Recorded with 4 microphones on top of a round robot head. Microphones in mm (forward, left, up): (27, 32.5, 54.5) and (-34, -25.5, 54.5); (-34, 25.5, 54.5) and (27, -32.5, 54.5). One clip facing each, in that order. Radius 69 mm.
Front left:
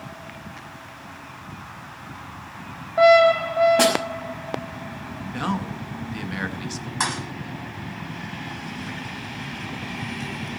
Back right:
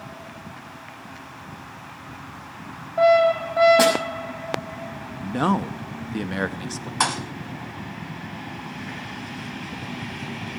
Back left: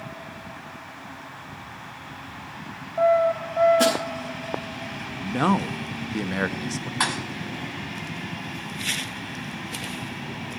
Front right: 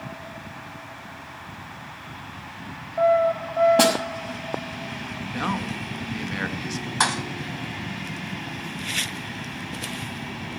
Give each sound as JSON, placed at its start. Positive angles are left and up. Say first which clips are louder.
{"t": 3.8, "sound": "a snare drum", "louder": "back right 1 dB, front right 1 dB", "azimuth_deg": -55, "distance_m": 6.0}
{"t": 5.2, "sound": "a man speaking", "louder": "back right 5 dB, back left 6 dB", "azimuth_deg": -175, "distance_m": 1.0}
{"t": 7.0, "sound": "a thud", "louder": "back right 3 dB, front right 3 dB", "azimuth_deg": -105, "distance_m": 0.8}